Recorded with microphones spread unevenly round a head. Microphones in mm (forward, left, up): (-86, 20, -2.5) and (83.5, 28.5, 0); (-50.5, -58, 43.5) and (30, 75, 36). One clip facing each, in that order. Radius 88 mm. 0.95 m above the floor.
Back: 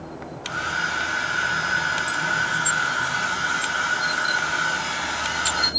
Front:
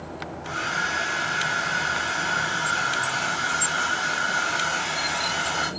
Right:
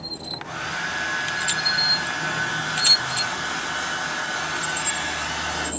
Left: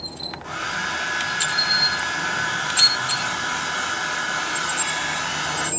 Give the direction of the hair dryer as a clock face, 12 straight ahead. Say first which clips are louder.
Even, left 3 dB; 10 o'clock.